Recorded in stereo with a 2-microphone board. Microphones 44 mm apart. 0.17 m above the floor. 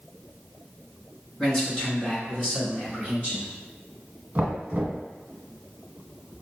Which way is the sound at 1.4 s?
15° left (ahead or behind).